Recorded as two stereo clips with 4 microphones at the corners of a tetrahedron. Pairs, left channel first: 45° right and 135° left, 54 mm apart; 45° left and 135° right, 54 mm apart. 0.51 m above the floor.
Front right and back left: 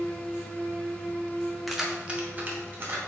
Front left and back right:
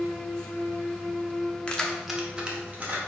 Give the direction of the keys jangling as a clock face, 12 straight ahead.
10 o'clock.